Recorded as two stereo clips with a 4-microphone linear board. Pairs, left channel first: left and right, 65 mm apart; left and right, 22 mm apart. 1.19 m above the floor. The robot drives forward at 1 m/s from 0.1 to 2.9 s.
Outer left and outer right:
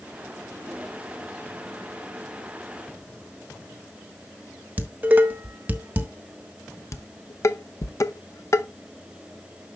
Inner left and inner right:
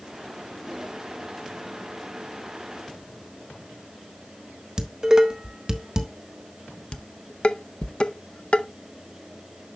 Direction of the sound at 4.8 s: 30° right (ahead or behind).